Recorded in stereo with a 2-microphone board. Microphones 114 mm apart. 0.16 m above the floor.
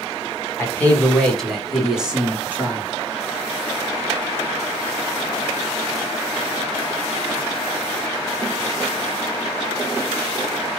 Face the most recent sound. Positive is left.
turn(degrees=-15)  # may be behind; listen again after turning